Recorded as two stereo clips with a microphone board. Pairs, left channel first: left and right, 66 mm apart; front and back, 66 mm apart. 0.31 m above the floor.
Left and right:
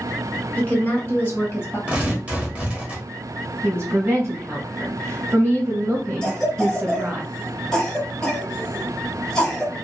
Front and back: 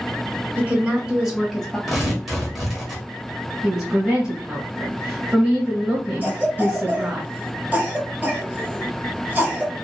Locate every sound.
0.6 s a woman speaking: 135° left, 1.2 m; by 1.8 s 80° left, 1.2 m
1.9 s tearing paper: 100° right, 1.0 m
3.6 s a woman speaking: 105° right, 1.3 m
6.2 s a cough: 160° left, 1.1 m